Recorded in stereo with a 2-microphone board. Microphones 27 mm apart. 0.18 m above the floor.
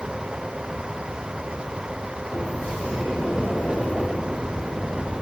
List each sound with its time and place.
2.3 s a sliding door: 55° left (ahead or behind), 6.5 m